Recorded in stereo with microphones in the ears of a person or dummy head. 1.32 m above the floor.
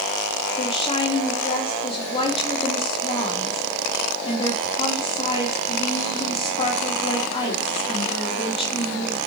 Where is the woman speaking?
25° left (ahead or behind), 2 m.